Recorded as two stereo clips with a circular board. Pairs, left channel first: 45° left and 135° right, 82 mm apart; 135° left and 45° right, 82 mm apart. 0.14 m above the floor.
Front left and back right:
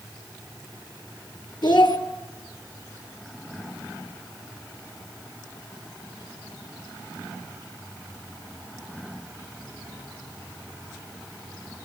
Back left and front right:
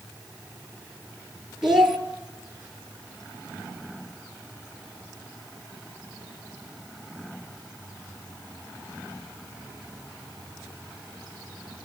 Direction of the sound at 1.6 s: 40° left.